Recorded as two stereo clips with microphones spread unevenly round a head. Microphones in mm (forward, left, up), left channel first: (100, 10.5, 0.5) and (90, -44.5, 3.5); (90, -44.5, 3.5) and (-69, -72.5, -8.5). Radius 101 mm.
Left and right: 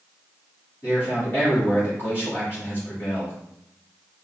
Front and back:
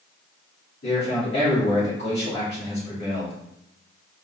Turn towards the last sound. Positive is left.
turn(degrees=30)